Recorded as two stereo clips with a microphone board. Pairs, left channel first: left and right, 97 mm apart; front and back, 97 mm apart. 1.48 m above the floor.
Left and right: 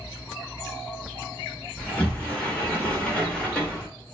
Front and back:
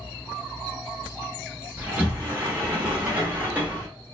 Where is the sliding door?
145° left, 1.0 m.